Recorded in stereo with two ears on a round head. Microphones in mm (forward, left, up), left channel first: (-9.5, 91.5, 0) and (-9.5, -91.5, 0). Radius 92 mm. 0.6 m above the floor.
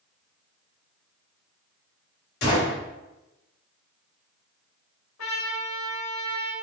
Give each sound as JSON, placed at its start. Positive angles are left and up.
{"t": 2.4, "sound": "a gunshot", "side_deg": 55, "distance_m": 2.0}
{"t": 5.2, "sound": "a trumpet", "side_deg": 75, "distance_m": 1.6}